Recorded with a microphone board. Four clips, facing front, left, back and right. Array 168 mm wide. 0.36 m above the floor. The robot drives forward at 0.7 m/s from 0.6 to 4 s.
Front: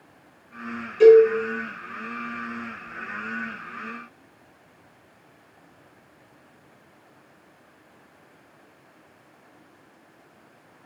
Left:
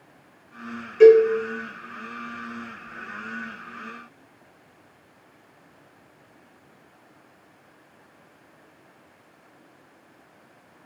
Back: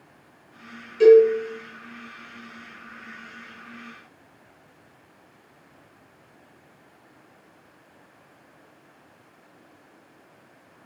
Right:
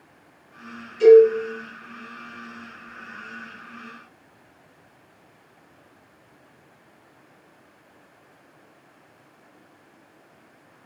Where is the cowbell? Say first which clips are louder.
Right 1 dB, front 1 dB; 80° left, 5 m.